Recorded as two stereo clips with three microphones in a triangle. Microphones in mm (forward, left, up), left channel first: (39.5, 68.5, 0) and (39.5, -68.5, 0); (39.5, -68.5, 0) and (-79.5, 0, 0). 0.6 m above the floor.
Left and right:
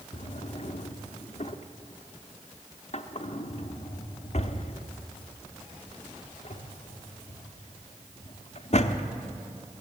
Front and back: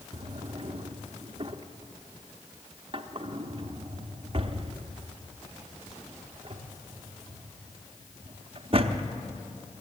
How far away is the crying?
I don't hear crying.